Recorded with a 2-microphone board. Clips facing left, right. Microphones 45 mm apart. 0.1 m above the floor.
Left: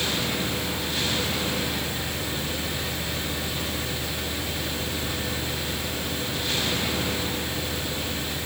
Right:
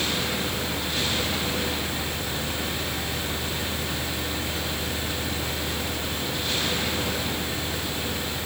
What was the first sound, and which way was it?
Only background noise.